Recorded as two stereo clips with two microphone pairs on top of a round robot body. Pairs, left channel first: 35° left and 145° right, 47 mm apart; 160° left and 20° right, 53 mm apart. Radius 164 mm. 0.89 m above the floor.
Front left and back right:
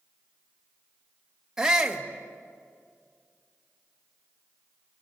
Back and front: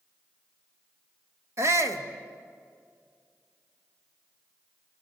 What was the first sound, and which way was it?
A shout, 60° right.